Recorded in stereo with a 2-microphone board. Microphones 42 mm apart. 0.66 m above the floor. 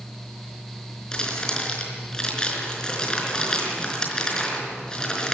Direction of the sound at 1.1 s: 20° left (ahead or behind).